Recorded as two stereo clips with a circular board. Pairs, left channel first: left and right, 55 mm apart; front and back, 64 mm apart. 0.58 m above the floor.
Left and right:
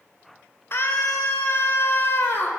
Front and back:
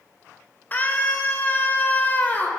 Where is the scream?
55° left, 2 m.